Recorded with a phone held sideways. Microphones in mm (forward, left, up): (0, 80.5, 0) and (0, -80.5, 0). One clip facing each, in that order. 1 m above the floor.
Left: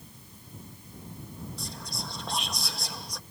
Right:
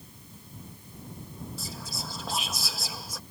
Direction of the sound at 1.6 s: 5° right (ahead or behind).